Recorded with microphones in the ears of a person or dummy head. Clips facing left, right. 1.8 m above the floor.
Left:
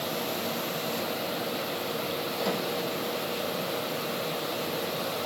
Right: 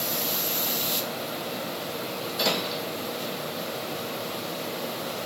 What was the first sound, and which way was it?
Only background noise.